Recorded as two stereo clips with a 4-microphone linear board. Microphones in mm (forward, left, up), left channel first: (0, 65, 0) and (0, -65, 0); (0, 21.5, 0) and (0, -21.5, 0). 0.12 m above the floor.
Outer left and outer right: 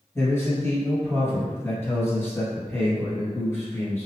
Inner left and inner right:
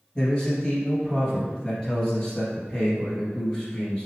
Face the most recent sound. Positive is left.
turn(degrees=20)  # may be behind; listen again after turning